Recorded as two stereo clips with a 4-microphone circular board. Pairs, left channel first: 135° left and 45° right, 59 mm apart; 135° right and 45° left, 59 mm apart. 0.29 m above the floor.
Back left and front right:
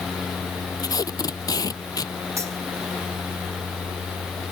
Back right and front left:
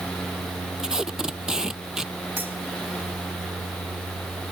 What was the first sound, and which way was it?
Tape being pulled, 125° left.